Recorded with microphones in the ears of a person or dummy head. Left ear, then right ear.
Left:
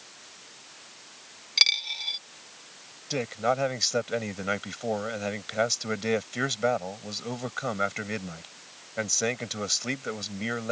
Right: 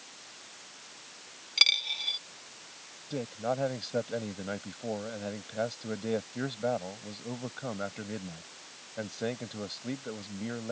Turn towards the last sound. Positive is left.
turn(degrees=60)  # may be behind; listen again after turning